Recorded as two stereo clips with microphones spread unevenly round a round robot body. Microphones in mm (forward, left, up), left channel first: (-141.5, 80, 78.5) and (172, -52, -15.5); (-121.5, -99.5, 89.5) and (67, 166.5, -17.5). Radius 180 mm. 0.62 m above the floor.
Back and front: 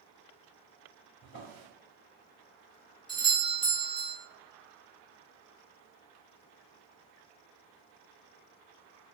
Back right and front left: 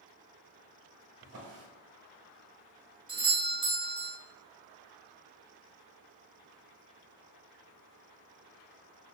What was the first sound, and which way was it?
A drawer, 100° left.